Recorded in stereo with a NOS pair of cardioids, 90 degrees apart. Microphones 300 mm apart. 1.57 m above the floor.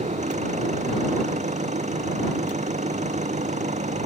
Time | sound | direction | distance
0.0 | an engine running | 25° right | ?